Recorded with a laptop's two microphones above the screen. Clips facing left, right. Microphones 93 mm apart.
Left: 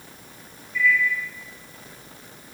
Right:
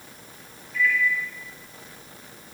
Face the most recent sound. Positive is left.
turn(degrees=-90)